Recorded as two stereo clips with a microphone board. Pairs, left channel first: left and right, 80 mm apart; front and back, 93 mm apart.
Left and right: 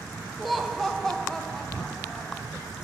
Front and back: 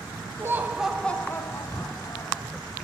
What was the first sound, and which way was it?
Laughter, straight behind.